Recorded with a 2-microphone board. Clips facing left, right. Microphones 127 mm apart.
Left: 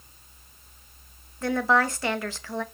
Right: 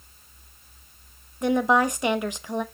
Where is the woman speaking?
20° right (ahead or behind), 0.9 m.